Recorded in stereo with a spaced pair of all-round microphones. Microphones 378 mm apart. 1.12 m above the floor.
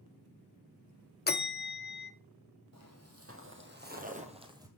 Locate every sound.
1.3 s a bell: 25° left (ahead or behind), 0.6 m
2.7 s footsteps: 40° right (ahead or behind), 2.0 m; by 4.7 s 10° right (ahead or behind), 1.6 m